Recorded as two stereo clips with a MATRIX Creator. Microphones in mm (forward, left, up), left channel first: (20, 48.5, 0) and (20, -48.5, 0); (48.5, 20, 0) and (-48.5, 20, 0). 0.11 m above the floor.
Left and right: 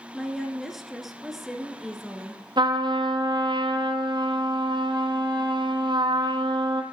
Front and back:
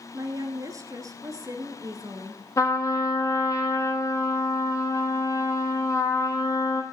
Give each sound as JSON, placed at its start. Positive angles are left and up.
{"t": 0.1, "sound": "a woman speaking", "azimuth_deg": -175, "distance_m": 1.4}
{"t": 2.6, "sound": "a trumpet", "azimuth_deg": -55, "distance_m": 1.0}